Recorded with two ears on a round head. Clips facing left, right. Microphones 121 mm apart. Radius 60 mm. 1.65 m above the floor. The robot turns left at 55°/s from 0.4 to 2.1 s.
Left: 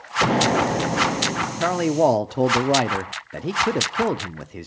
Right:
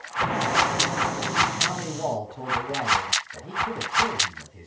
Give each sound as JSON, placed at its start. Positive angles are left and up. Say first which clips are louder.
{"t": 0.2, "sound": "an explosion", "louder": "left 5 dB", "azimuth_deg": 80, "distance_m": 0.8}
{"t": 1.6, "sound": "a man speaking", "louder": "left 11 dB", "side_deg": 65, "distance_m": 0.6}